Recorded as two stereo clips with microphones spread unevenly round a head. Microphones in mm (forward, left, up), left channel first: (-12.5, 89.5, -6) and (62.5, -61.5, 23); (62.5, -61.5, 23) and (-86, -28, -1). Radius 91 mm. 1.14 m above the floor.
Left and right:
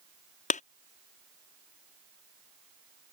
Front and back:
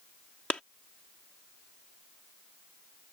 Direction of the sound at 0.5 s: 70° left.